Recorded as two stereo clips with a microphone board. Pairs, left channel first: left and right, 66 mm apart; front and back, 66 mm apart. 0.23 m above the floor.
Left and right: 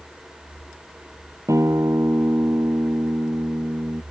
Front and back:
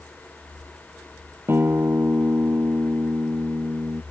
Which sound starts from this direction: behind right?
A guitar, at 1.5 s.